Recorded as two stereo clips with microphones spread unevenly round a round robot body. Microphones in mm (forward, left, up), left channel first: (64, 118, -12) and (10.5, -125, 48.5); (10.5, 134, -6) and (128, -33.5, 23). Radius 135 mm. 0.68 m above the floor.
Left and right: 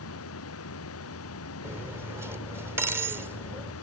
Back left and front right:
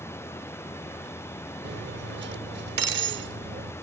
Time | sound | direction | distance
0.0 | running water | 45° left | ?
1.6 | cutlery clinking | 20° right | ?